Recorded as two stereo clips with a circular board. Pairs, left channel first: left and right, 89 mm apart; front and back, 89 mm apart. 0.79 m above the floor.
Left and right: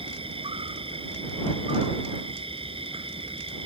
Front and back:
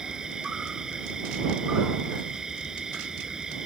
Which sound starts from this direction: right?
An insect, at 0.0 s.